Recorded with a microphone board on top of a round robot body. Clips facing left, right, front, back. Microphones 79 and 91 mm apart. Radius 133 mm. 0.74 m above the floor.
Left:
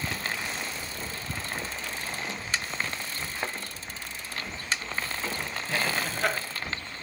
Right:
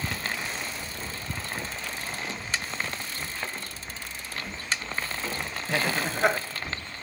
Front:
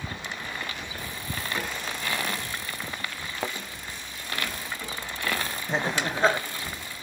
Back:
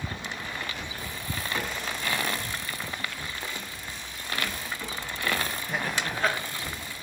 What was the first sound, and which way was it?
A thud, 15° left.